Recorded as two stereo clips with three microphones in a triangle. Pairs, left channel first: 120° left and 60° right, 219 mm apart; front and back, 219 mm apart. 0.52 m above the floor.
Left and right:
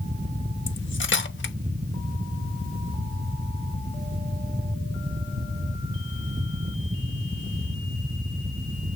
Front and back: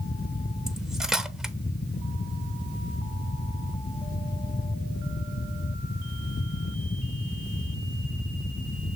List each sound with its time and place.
0.7 s cutlery clinking: 95° left, 0.8 m